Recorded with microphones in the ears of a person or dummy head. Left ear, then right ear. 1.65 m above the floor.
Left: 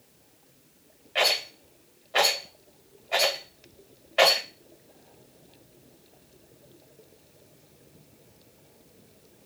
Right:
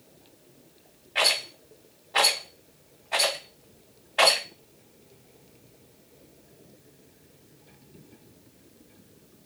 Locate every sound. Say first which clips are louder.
1.1 s a rattle: even; 20° left (ahead or behind), 1.5 m